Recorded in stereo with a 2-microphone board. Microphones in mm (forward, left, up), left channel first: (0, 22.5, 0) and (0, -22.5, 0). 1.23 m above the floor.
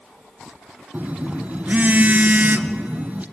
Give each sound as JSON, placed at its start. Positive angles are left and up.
{"t": 0.9, "sound": "a phone buzzing", "side_deg": -40, "distance_m": 0.9}